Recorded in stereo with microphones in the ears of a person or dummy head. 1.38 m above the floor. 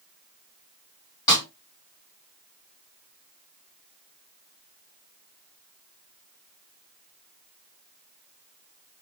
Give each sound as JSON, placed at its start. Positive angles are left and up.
{"t": 1.3, "sound": "a snare drum", "side_deg": 20, "distance_m": 2.5}